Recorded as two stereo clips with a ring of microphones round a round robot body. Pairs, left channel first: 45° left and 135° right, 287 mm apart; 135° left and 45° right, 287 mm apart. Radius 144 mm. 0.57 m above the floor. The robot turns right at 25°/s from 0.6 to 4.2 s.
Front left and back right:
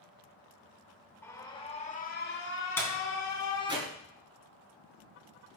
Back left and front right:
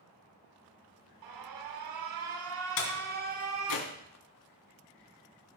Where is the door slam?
125° left, 3.5 m; by 3.9 s 155° left, 3.5 m.